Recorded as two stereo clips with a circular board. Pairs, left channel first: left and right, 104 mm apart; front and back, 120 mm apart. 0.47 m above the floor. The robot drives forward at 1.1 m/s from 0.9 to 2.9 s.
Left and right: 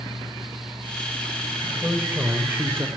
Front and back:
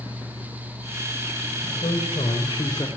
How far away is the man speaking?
About 1.9 m.